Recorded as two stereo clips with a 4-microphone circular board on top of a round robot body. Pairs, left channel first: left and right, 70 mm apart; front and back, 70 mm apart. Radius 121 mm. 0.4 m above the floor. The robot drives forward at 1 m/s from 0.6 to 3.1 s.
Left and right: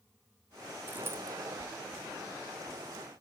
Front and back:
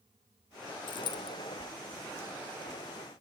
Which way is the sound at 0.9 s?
20° right.